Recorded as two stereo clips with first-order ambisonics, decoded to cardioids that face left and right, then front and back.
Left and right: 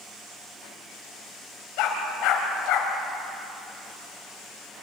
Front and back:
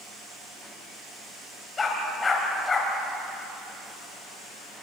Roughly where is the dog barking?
Left.